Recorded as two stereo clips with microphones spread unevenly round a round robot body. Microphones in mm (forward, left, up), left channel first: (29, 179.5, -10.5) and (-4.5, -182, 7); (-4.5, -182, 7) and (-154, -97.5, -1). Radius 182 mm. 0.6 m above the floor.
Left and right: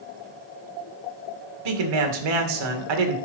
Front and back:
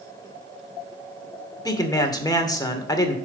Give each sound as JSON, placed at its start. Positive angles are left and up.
{"t": 1.6, "sound": "a man speaking", "azimuth_deg": -100, "distance_m": 2.0}